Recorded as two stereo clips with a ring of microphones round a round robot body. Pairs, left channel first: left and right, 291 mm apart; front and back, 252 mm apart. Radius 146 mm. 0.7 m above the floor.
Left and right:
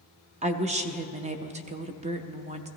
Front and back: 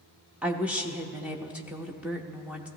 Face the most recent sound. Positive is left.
turn(degrees=-100)